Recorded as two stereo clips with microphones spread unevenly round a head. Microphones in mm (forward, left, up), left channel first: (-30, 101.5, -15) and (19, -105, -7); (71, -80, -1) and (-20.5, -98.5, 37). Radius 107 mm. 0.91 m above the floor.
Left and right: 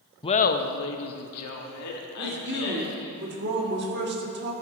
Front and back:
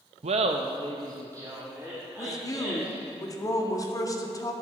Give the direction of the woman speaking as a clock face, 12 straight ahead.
1 o'clock.